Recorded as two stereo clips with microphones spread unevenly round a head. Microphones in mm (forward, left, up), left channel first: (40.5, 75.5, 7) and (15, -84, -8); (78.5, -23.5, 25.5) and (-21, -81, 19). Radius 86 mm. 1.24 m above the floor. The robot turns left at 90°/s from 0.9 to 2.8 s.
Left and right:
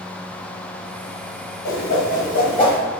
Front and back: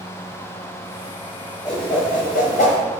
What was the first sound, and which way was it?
A whoosh, 110° left.